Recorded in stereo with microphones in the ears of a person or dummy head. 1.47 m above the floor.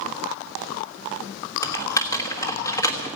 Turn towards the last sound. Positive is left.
turn(degrees=20)  # may be behind; listen again after turning